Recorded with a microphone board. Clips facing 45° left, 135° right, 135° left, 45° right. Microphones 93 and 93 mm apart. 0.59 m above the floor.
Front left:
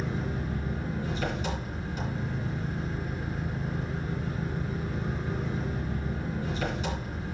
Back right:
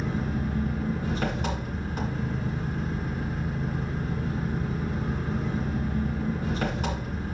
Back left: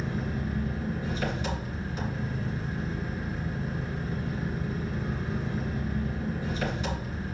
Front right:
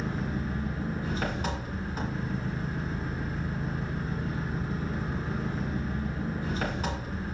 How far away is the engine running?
About 2.5 m.